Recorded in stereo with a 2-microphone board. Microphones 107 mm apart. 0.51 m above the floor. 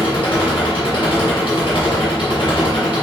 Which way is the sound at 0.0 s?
50° left (ahead or behind).